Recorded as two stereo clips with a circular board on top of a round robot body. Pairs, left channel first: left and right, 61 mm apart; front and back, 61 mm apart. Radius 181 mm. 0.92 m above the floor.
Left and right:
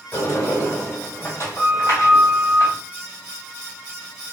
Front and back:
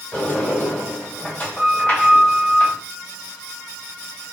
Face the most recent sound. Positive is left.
turn(degrees=60)